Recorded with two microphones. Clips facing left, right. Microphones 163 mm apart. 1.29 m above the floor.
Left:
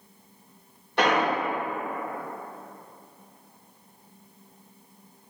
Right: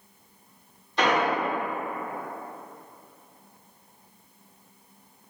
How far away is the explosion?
About 1.6 m.